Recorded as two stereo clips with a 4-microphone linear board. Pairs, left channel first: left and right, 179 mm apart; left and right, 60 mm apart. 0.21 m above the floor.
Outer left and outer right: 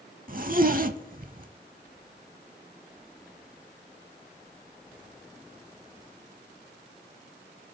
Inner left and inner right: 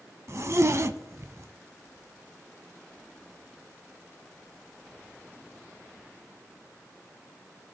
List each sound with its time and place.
0.3 s a zipper: 50° right (ahead or behind), 0.5 m